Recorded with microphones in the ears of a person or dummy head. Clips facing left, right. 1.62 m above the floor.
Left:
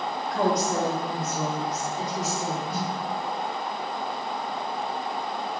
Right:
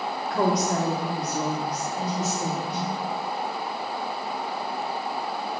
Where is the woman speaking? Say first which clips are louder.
Right 1 dB; 50° right (ahead or behind), 1.4 m; by 2.6 s 20° right (ahead or behind), 2.5 m.